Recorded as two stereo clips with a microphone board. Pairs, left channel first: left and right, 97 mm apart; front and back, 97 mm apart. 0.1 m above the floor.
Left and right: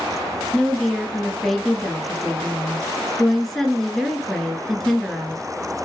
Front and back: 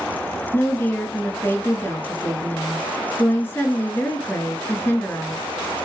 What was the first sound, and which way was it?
A woman speaking, 10° left.